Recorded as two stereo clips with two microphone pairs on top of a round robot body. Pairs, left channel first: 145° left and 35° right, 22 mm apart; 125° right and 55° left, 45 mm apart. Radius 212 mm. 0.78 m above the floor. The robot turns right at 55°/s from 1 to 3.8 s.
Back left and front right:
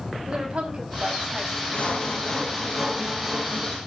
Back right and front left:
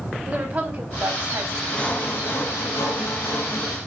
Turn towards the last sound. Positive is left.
turn(degrees=-75)